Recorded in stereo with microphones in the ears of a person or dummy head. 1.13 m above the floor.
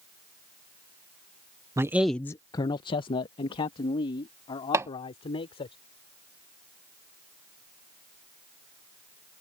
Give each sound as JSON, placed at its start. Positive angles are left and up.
{"t": 1.8, "sound": "a man speaking", "side_deg": -15}
{"t": 4.7, "sound": "hammering", "side_deg": -15}